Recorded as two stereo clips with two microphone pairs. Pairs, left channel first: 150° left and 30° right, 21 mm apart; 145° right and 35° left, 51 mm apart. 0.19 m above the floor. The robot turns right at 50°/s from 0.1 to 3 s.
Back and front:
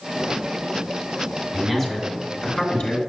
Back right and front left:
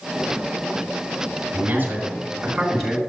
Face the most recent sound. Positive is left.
turn(degrees=135)